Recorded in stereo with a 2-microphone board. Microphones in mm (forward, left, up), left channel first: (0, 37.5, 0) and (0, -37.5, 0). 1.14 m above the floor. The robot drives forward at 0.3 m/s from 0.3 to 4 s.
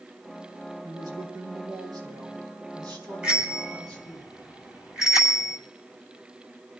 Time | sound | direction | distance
0.8 | a woman speaking | 80° right | 4 m
3.2 | a bicycle bell | 20° right (ahead or behind) | 6 m